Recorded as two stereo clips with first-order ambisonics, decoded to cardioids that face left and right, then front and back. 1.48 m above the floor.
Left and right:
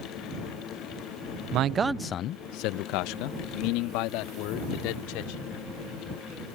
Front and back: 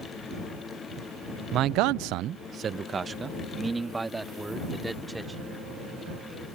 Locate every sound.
1.5 s a man speaking: 130° right; by 5.5 s 95° left